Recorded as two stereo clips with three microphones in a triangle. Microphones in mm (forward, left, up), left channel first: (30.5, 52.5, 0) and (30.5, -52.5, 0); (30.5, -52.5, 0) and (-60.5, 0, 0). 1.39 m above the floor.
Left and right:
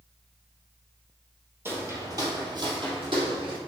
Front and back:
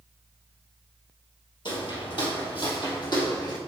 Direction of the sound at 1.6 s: 30° right.